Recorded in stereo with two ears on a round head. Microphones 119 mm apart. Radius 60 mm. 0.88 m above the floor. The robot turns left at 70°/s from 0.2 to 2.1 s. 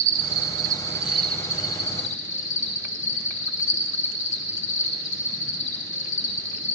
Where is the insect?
110° right, 1.2 m; by 6.8 s 115° left, 1.2 m.